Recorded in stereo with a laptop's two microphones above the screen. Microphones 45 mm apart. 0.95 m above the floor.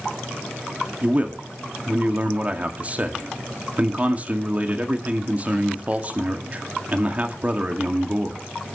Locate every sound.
1.0 s a man speaking: 30° right (ahead or behind), 2 m